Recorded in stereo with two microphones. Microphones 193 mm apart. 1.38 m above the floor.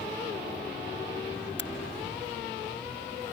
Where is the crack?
65° left (ahead or behind).